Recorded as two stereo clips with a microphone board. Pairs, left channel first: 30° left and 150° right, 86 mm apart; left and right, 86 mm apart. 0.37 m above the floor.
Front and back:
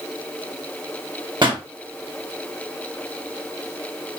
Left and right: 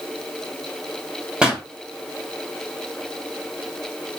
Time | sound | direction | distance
1.4 | a pop | 170° right | 1.1 m